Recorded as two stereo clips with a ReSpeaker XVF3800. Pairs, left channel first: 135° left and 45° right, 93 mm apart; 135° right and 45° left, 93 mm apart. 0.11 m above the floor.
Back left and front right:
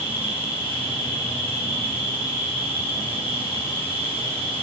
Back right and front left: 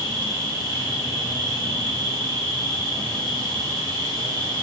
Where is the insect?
75° left, 2 m.